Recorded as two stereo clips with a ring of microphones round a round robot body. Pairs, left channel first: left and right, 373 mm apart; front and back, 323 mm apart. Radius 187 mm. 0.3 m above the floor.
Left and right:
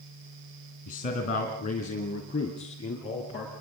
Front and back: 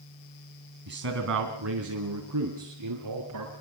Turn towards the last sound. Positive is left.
turn(degrees=165)